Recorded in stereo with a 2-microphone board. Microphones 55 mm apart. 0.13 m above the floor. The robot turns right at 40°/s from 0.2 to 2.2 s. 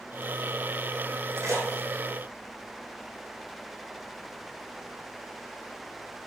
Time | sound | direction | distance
1.4 | a splash | 70° right (ahead or behind) | 4.5 m